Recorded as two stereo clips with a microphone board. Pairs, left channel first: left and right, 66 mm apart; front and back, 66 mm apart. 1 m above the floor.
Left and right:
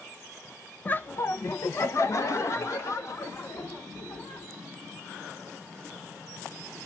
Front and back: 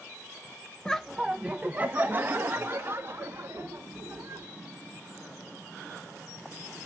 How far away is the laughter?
About 0.6 m.